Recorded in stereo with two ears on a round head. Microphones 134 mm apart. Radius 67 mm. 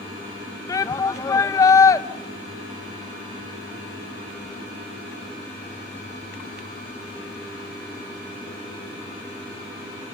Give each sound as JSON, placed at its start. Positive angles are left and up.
{"t": 0.7, "sound": "a shout", "side_deg": 20, "distance_m": 0.9}